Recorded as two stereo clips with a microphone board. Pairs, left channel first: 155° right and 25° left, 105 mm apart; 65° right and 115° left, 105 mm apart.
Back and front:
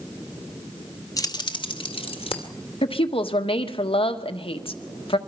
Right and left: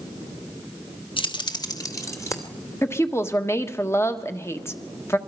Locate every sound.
1.2 s keys jangling: 100° right, 1.0 m; by 2.5 s 130° right, 2.5 m
2.8 s a woman speaking: 130° right, 1.4 m